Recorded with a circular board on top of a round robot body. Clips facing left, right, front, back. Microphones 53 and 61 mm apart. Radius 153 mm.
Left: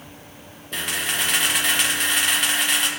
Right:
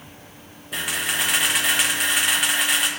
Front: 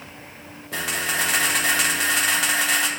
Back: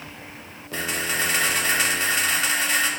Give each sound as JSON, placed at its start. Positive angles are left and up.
{"t": 0.7, "sound": "a camera shutter", "azimuth_deg": -5, "distance_m": 1.2}